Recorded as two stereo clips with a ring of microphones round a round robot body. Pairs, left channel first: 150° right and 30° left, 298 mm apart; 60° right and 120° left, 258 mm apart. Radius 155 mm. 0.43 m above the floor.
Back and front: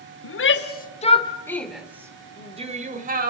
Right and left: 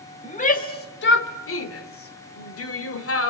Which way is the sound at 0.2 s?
120° right.